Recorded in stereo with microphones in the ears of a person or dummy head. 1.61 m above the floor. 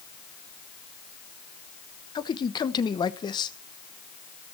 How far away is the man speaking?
About 1.1 m.